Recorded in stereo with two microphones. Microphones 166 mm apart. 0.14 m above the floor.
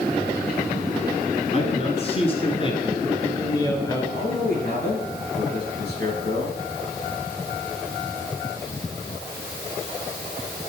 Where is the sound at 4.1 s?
75° left (ahead or behind), 6.5 m.